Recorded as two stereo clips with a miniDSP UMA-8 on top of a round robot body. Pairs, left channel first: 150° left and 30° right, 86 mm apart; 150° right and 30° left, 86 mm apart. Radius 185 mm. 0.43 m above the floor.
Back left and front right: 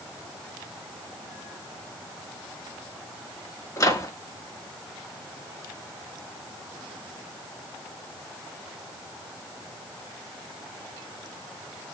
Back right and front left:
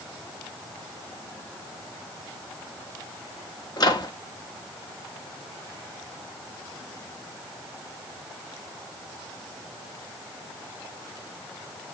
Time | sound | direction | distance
3.8 | a microwave | 170° right | 1.5 m